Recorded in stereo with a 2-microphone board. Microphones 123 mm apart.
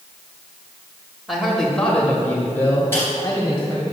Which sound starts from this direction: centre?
A man speaking, at 1.3 s.